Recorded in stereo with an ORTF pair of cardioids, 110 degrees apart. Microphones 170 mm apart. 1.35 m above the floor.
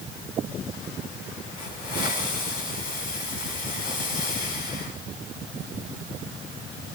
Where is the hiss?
60° left, 6 m.